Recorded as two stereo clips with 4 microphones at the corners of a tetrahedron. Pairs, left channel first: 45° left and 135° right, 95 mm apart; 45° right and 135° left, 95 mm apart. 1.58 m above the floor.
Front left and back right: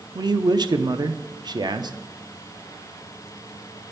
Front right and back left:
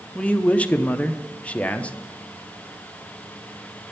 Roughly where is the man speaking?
Behind right.